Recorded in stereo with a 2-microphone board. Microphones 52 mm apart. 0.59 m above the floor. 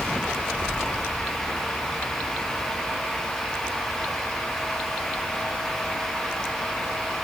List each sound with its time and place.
Only background noise.